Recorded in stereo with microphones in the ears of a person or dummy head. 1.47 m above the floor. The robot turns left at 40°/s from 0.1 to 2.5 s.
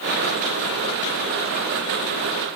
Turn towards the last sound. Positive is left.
No sound to turn to.